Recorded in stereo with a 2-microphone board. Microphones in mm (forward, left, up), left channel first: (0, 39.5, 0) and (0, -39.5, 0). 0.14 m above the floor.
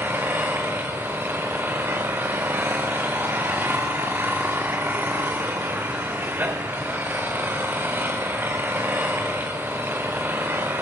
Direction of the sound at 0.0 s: 25° right (ahead or behind).